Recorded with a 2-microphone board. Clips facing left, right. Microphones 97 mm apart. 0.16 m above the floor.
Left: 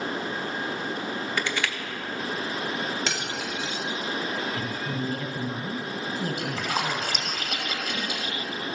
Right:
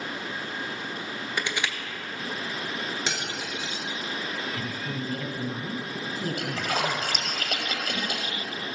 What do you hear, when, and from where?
1.4 s crushing: 20° right (ahead or behind), 1.1 m
3.1 s cutlery clinking: 10° right (ahead or behind), 1.7 m
4.5 s a woman speaking: 15° left (ahead or behind), 1.2 m
6.4 s a splash: 60° right (ahead or behind), 2.5 m